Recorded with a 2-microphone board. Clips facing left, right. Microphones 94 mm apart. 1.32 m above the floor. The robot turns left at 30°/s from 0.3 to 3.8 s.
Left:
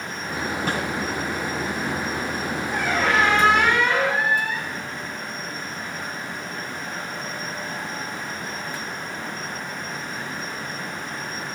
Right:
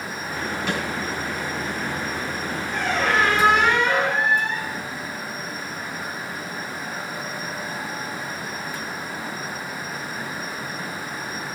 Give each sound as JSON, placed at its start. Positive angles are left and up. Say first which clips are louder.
{"t": 0.7, "sound": "a snare drum", "louder": "even", "side_deg": 45, "distance_m": 7.0}
{"t": 2.7, "sound": "a squeak", "louder": "even", "azimuth_deg": 10, "distance_m": 7.5}